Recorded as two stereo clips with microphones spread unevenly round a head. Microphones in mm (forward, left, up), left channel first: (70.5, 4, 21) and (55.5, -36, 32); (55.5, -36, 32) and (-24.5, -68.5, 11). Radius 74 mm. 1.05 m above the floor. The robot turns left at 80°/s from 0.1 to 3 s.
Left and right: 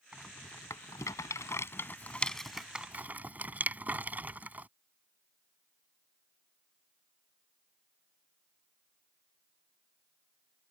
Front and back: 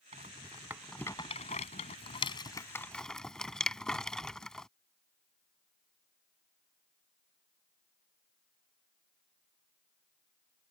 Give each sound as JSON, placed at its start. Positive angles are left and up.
{"t": 0.1, "sound": "a rattle", "azimuth_deg": 170}